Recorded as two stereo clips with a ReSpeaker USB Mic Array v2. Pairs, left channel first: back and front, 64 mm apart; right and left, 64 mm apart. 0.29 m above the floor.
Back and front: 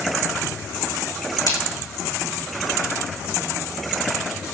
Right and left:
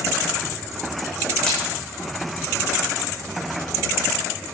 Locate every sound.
1.5 s a splash: 170° right, 6.5 m